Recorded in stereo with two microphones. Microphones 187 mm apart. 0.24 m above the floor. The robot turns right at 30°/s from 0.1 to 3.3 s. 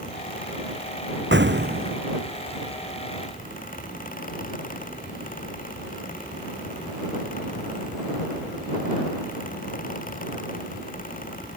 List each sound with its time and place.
1.3 s an explosion: 70° right (ahead or behind); by 2.0 s 45° right (ahead or behind)